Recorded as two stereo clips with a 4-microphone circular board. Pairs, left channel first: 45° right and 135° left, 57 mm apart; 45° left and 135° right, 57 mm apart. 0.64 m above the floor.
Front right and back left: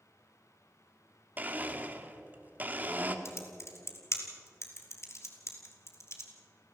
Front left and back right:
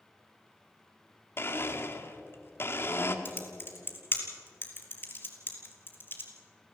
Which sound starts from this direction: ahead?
Typing on a keyboard, at 3.2 s.